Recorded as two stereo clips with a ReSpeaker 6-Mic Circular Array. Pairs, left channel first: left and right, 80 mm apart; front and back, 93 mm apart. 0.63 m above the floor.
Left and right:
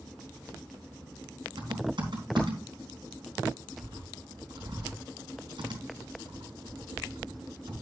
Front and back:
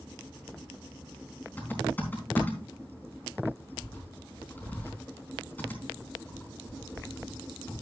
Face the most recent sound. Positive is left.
turn(degrees=-70)